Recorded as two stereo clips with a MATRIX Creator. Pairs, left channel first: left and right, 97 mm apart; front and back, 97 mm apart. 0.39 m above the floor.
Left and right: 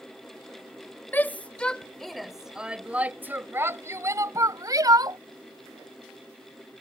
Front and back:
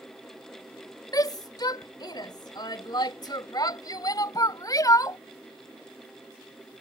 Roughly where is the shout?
Ahead left.